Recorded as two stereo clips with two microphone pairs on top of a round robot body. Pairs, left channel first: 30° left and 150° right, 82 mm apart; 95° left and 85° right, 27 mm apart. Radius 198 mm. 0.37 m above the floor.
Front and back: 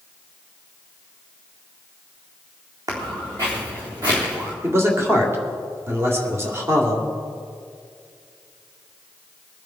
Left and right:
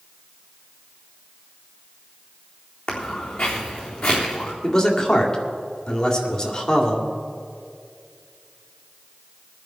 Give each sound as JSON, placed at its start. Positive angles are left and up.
{"t": 2.9, "sound": "footsteps", "azimuth_deg": 160, "distance_m": 2.5}
{"t": 4.6, "sound": "a man speaking", "azimuth_deg": 160, "distance_m": 2.0}